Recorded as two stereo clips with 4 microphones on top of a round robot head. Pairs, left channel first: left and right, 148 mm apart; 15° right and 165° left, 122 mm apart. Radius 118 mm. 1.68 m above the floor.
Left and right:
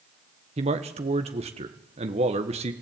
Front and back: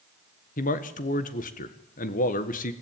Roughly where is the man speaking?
Ahead right.